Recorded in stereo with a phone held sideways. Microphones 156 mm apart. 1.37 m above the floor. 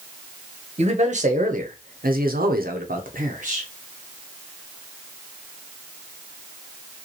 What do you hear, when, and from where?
0.8 s a man speaking: 45° right (ahead or behind), 1.2 m; by 3.7 s 50° right (ahead or behind), 1.1 m